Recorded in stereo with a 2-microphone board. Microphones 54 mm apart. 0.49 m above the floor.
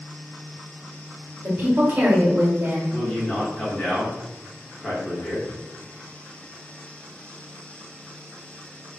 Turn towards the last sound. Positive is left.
turn(degrees=20)  # may be behind; listen again after turning